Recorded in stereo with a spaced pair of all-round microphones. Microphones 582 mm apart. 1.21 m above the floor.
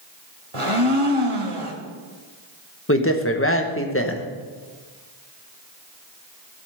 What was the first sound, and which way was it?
A blender, 60° right (ahead or behind).